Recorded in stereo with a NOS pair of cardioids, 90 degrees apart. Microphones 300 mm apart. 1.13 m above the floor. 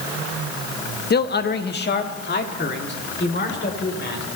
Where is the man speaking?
35° left, 1.0 m.